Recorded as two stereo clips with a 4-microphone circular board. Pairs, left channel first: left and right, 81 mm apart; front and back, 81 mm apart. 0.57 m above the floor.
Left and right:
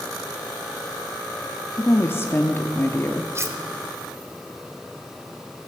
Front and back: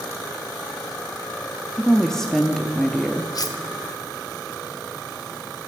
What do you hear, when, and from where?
1.8 s a woman speaking: 80° left, 0.7 m
3.4 s cutlery clinking: 35° right, 1.1 m